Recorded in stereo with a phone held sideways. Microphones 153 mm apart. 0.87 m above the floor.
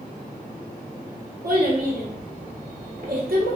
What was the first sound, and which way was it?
A child speaking, 70° right (ahead or behind).